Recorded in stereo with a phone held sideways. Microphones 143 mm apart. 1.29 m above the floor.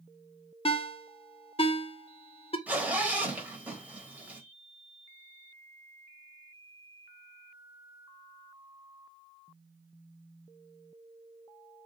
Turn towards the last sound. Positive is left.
turn(degrees=-10)  # may be behind; listen again after turning